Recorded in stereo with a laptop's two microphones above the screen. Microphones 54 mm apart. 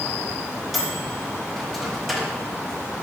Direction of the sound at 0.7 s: 5° left (ahead or behind).